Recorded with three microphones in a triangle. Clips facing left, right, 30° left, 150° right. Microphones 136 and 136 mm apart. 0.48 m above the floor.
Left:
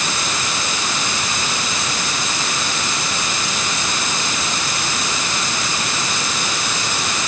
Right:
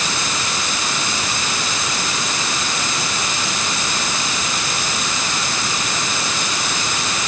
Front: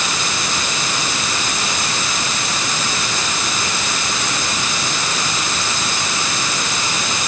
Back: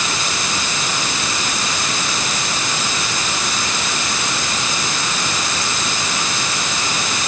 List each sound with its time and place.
Only background noise.